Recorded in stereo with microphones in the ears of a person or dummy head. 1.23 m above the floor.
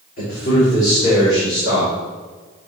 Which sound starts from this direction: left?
A man speaking, at 0.2 s.